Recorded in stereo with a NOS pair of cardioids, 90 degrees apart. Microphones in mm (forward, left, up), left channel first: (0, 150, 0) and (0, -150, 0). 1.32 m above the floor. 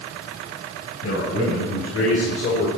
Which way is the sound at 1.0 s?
55° left.